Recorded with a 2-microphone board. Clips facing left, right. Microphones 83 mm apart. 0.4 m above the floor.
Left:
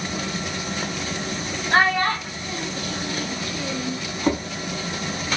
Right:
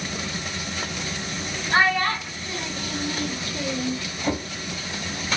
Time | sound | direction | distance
1.7 | a child speaking | 50° left (ahead or behind) | 1.0 m
4.2 | a drawer | 55° left (ahead or behind) | 1.0 m